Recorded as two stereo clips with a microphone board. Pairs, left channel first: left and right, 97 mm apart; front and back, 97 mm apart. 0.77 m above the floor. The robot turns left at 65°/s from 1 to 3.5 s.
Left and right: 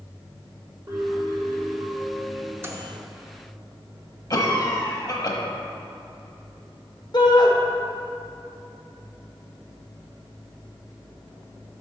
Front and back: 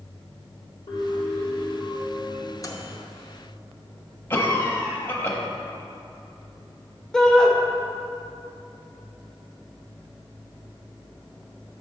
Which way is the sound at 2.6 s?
35° right.